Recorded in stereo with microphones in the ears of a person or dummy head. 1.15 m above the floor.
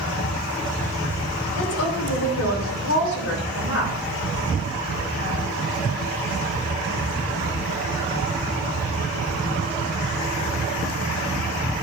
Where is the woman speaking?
80° left, 3 m.